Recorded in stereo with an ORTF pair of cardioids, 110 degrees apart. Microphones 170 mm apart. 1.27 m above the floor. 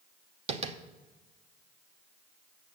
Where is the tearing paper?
No tearing paper in this recording.